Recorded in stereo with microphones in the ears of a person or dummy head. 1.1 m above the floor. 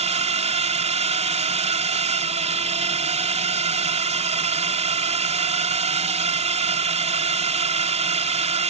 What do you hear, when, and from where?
0.0 s a drone: 30° right (ahead or behind)